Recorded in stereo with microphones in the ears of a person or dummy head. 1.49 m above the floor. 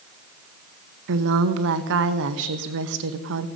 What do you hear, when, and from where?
1.1 s a woman speaking: 70° right (ahead or behind), 1.2 m